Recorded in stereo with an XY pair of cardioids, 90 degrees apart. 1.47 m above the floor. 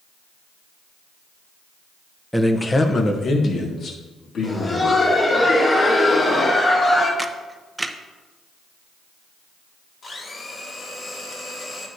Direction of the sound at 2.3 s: Straight ahead.